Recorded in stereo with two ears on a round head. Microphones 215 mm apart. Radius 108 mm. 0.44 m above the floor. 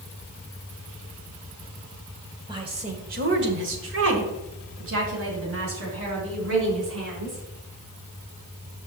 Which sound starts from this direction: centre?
A woman speaking, at 2.5 s.